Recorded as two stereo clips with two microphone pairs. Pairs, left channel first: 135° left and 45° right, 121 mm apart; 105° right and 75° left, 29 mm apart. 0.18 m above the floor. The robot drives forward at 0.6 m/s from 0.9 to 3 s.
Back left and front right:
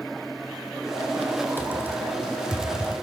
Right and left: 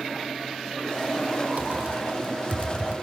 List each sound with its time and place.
1.6 s typing on a keyboard: 60° left, 2.5 m; by 2.9 s 85° left, 2 m